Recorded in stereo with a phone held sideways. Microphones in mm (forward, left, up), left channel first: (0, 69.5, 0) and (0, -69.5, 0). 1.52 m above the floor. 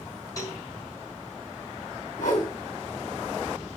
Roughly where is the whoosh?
Left.